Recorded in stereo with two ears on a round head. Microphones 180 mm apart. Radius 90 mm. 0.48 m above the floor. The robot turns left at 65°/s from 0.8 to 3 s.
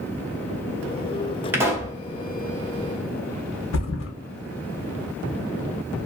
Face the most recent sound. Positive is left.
turn(degrees=65)  # may be behind; listen again after turning